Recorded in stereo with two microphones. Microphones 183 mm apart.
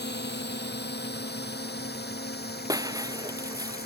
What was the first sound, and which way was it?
A drone, 75° left (ahead or behind).